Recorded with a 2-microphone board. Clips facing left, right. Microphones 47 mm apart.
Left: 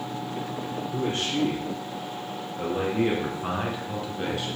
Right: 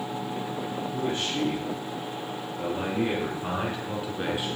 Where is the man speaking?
65° left (ahead or behind), 3.5 m; by 4.6 s 20° right (ahead or behind), 2 m.